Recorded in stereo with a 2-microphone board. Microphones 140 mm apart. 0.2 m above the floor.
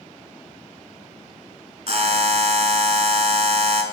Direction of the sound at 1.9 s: 50° right (ahead or behind).